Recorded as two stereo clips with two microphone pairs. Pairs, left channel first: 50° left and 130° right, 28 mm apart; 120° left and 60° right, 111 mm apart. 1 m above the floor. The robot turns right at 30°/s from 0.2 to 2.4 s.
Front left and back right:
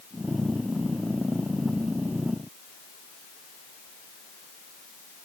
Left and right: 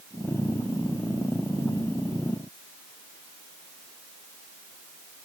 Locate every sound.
Only background noise.